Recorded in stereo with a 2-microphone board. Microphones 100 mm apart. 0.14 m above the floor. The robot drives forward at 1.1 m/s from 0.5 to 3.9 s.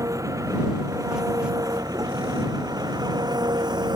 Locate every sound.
0.0 s an engine running: 30° right (ahead or behind); by 4.0 s 45° right (ahead or behind)